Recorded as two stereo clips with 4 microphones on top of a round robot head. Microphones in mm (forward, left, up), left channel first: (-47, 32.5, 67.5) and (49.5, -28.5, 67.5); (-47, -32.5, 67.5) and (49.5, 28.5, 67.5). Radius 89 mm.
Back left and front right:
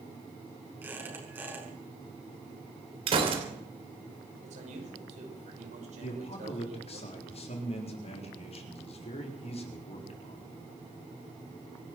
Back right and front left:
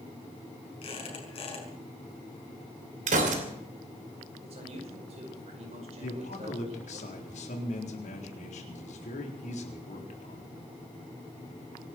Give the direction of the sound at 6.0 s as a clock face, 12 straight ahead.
6 o'clock.